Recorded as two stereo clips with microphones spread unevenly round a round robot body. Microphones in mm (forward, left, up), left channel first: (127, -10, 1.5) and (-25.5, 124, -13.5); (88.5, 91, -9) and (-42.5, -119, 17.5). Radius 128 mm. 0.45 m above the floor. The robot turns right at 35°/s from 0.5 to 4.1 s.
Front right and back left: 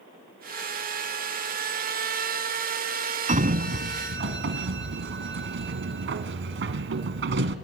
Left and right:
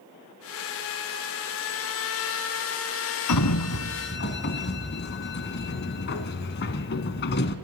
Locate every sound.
3.3 s a sliding door: 80° left, 1.1 m; by 7.5 s 110° left, 1.1 m